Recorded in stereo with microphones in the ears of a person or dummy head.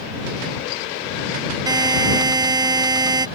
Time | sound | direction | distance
1.7 | a buzzer | 20° right (ahead or behind) | ?